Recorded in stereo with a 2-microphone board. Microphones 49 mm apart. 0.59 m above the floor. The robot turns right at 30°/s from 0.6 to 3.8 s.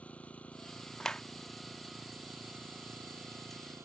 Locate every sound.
0.0 s an engine running: 155° left; by 3.9 s 110° right
1.0 s a clap: 15° left (ahead or behind)